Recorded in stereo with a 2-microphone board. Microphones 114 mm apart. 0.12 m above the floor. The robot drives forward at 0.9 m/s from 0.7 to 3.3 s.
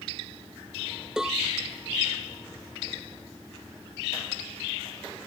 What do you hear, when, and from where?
1.2 s a cowbell: 5° right (ahead or behind)